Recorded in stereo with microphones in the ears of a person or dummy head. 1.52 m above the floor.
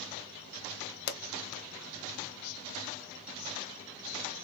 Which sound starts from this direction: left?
A pop, at 1.1 s.